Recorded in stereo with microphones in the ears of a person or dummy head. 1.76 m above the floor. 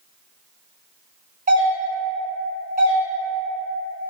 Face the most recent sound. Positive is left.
turn(degrees=-45)  # may be behind; listen again after turning